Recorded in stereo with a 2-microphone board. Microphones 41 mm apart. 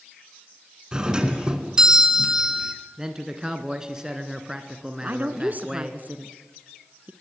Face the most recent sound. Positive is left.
turn(degrees=-40)  # may be behind; listen again after turning